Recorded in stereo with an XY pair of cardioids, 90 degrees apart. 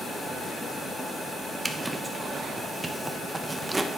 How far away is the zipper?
About 1.0 m.